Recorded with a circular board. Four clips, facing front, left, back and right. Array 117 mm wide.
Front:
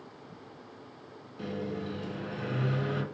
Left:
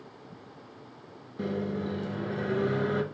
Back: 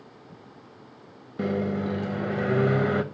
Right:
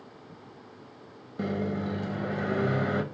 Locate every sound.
1.4 s a microwave: 155° right, 0.8 m